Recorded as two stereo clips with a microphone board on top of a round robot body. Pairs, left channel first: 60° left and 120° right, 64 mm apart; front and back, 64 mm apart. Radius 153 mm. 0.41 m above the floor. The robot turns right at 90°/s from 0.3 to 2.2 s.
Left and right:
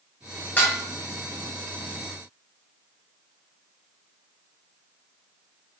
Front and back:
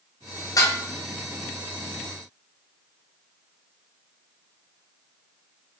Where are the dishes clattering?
5° right, 1.4 m; by 0.8 s 15° left, 1.4 m.